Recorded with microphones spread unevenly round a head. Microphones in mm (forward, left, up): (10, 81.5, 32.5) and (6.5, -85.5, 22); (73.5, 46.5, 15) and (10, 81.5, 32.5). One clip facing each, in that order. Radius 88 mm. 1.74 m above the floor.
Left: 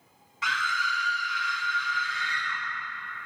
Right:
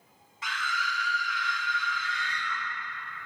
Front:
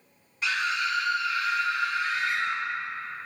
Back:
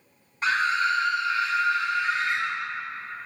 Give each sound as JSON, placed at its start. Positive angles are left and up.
{"t": 0.4, "sound": "a scream", "azimuth_deg": 115, "distance_m": 0.7}